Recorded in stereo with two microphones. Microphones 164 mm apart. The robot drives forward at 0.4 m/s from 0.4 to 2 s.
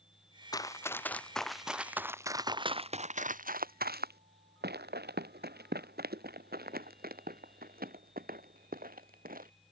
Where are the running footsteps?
25° left (ahead or behind); by 9.5 s 60° right (ahead or behind).